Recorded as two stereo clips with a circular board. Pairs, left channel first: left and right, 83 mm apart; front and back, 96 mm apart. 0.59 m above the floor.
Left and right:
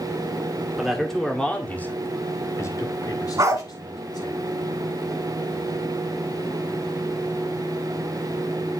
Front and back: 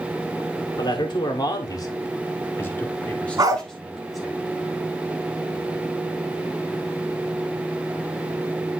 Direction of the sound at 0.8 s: Straight ahead.